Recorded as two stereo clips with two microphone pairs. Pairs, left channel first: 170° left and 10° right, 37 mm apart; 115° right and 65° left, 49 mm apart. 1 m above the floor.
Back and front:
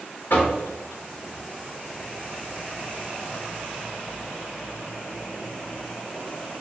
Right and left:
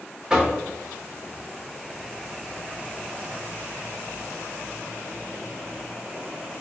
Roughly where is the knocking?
Behind left.